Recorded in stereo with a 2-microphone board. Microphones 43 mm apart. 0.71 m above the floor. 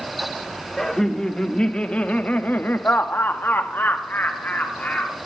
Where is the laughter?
10° left (ahead or behind), 1.5 m; by 5.2 s 35° left (ahead or behind), 1.5 m.